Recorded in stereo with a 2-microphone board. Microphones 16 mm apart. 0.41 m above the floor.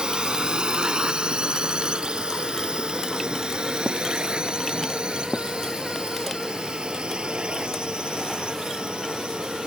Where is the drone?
65° right (ahead or behind); by 9.7 s 75° right (ahead or behind).